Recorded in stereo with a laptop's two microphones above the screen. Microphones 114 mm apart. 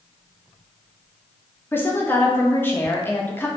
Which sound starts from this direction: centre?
A woman speaking, at 1.7 s.